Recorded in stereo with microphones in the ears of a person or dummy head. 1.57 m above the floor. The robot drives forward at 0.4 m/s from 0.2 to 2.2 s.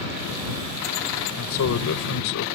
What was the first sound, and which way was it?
A man speaking, 80° left.